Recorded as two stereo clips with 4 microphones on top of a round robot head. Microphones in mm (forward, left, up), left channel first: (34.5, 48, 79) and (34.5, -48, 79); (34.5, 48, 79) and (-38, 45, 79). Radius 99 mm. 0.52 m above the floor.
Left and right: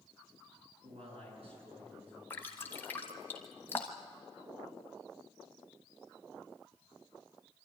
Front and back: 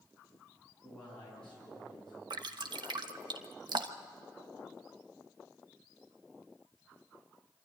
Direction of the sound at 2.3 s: 165° left.